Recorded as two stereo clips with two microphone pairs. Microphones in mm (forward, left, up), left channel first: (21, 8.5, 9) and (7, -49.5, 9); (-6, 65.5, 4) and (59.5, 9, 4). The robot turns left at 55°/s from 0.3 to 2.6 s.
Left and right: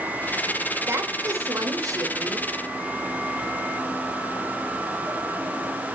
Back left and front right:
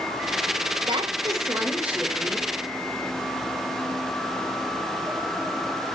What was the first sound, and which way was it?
A woman speaking, 55° right.